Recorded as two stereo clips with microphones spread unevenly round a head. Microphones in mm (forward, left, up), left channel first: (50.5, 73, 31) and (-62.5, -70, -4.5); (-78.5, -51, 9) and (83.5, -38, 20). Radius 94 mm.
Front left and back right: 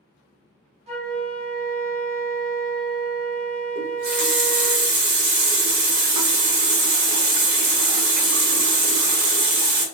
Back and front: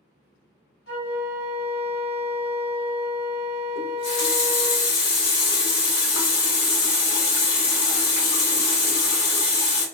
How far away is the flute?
About 0.9 m.